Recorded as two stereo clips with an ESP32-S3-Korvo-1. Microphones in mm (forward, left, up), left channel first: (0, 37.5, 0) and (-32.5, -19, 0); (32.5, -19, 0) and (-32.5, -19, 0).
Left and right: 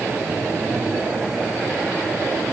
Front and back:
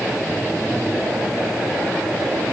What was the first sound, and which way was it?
Only background noise.